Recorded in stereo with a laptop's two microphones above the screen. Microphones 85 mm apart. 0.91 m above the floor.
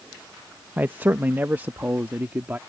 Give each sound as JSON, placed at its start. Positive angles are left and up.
{"t": 0.8, "sound": "a man speaking", "side_deg": -20}